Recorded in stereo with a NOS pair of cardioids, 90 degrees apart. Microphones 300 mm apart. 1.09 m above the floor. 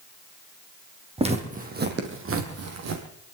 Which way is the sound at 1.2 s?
20° right.